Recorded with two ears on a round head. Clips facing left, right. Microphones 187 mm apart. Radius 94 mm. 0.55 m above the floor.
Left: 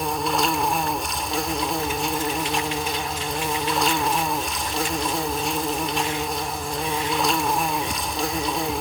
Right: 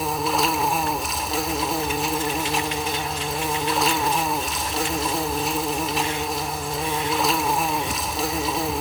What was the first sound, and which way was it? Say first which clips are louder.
An insect: even; centre (ahead or behind).